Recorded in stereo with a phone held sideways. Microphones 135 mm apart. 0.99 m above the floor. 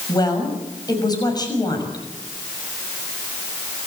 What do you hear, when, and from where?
0.1 s a woman speaking: 30° left (ahead or behind), 6 m